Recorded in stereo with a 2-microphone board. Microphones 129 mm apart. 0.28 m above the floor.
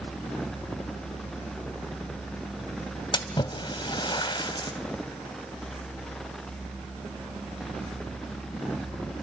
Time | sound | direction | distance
3.1 | a splash | 40° left (ahead or behind) | 1.1 m